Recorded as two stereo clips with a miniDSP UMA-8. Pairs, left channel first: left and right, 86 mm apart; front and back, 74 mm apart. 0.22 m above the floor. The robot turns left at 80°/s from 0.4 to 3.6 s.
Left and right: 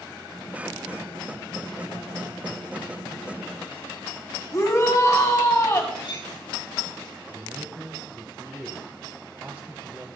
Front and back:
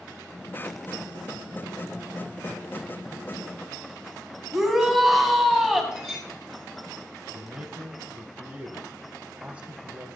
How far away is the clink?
About 5 m.